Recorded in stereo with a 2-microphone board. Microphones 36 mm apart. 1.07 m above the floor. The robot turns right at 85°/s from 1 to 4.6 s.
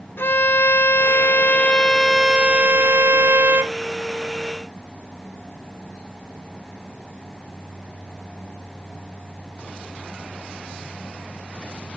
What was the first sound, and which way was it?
A violin, 85° left.